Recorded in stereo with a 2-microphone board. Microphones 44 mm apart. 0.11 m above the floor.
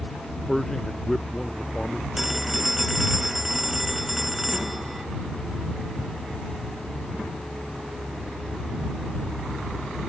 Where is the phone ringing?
5° right (ahead or behind).